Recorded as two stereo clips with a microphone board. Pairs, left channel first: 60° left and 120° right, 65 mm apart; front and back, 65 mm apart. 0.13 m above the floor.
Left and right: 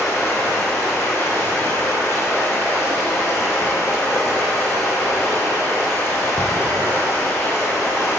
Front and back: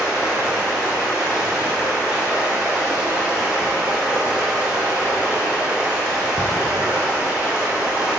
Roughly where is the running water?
Left.